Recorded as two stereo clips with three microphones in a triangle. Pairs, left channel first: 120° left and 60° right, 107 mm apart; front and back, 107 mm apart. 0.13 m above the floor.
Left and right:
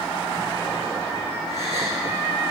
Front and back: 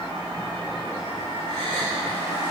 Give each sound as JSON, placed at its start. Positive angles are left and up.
{"t": 1.5, "sound": "a gasp", "azimuth_deg": -50, "distance_m": 7.0}